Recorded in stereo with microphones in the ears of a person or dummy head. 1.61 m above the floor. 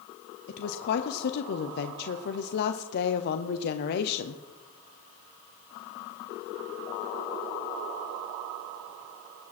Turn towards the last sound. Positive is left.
turn(degrees=60)  # may be behind; listen again after turning